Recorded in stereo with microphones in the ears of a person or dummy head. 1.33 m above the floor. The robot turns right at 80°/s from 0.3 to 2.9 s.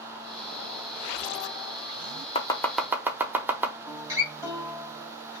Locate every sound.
2.4 s chopping: 35° left (ahead or behind), 0.8 m; by 3.8 s 10° right (ahead or behind), 0.8 m
3.9 s a guitar: 15° right (ahead or behind), 3 m